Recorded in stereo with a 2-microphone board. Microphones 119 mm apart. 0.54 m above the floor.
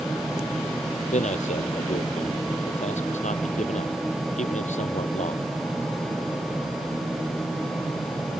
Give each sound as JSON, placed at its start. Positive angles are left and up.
{"t": 1.1, "sound": "a man speaking", "side_deg": 80}